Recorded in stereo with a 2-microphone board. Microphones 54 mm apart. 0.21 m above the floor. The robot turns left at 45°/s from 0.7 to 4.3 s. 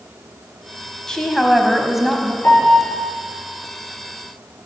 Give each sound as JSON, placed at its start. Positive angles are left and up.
{"t": 1.1, "sound": "a woman speaking", "side_deg": 10, "distance_m": 1.1}
{"t": 2.4, "sound": "a piano", "side_deg": 60, "distance_m": 4.0}